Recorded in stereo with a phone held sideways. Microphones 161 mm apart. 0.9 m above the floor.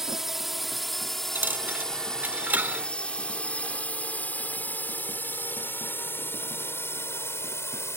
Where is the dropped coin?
10° right (ahead or behind).